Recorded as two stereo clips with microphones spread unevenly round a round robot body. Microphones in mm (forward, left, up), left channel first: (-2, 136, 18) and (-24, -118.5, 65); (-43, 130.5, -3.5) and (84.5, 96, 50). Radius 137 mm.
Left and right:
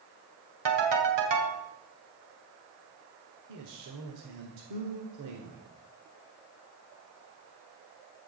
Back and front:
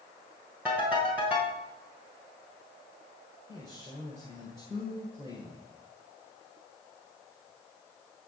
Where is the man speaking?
100° right, 1.8 m.